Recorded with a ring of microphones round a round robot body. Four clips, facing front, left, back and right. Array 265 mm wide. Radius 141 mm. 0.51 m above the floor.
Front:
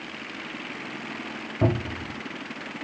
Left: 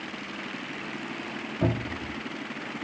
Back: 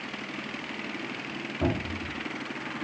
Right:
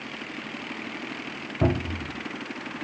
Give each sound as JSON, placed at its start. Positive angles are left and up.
{"t": 1.6, "sound": "a cupboard door", "azimuth_deg": -40, "distance_m": 1.5}